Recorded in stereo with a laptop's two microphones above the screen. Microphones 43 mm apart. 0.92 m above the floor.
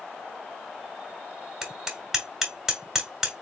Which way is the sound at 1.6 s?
10° right (ahead or behind).